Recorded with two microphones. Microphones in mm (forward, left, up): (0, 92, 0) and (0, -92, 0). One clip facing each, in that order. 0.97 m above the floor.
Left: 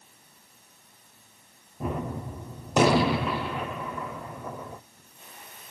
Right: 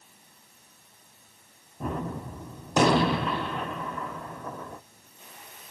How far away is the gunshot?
About 0.6 m.